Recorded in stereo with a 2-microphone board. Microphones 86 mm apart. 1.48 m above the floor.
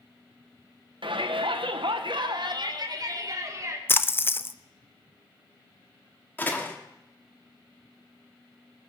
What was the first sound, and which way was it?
A shout, 75° right (ahead or behind).